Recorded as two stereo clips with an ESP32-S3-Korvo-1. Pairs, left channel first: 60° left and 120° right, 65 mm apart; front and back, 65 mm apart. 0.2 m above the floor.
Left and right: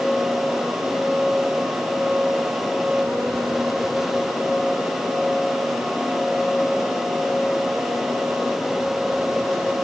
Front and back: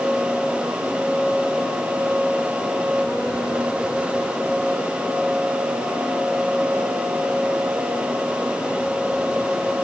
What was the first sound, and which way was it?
Only background noise.